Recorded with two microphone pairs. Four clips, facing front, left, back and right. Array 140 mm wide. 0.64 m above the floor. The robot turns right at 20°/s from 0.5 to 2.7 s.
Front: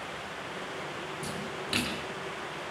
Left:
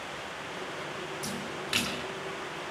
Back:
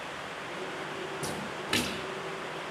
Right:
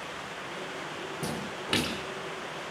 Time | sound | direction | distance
1.2 | a splash | 105° right | 4 m